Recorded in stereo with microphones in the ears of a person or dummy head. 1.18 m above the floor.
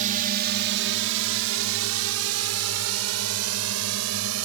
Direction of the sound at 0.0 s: 40° right (ahead or behind).